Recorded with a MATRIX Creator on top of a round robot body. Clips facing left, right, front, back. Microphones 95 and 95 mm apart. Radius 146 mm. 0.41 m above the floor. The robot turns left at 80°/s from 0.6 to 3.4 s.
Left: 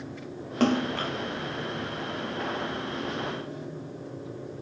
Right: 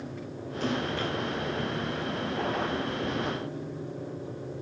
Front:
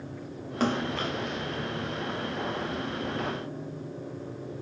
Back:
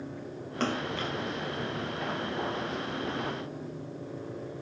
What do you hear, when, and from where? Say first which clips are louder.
0.6 s a splash: left 5 dB, front 3 dB; 80° left, 0.8 m; by 1.1 s 40° left, 0.8 m